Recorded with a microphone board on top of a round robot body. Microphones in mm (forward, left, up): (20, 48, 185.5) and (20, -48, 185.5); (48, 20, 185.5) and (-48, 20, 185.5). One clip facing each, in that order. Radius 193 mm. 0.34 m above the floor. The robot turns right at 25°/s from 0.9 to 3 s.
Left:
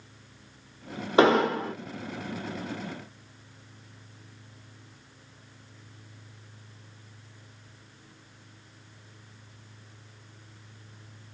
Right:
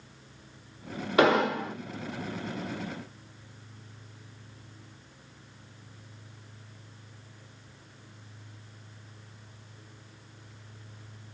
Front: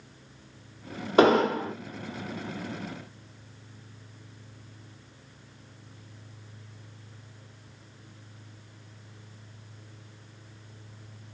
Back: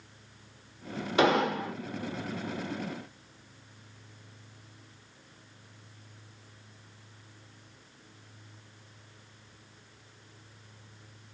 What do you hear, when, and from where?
1.2 s an explosion: 35° left, 1.2 m; by 1.7 s 50° left, 1.2 m